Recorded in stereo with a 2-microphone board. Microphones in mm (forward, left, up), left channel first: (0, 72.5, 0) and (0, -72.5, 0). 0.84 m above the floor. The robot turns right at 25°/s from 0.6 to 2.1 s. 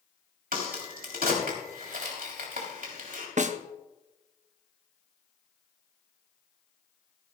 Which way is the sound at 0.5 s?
75° right (ahead or behind).